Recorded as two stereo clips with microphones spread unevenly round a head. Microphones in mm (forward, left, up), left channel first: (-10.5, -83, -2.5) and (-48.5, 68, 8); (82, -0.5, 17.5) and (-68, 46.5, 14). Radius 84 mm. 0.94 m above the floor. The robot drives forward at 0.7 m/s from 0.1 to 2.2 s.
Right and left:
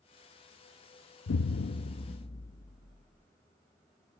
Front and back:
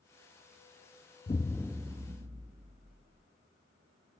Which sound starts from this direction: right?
An explosion, at 1.3 s.